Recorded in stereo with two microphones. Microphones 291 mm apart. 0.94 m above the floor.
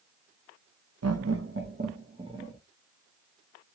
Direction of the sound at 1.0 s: 60° right (ahead or behind).